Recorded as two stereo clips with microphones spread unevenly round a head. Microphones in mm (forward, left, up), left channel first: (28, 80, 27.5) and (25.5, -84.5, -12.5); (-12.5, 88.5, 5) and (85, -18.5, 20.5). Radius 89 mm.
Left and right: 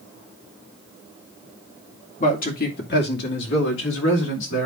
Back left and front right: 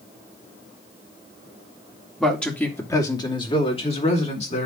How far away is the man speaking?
About 2.5 m.